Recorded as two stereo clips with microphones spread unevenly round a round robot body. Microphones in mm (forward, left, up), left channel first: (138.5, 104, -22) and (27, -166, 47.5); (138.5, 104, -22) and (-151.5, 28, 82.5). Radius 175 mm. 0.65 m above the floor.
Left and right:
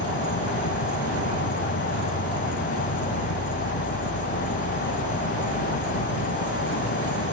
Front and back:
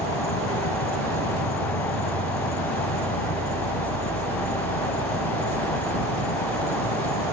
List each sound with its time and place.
0.0 s an insect: 15° left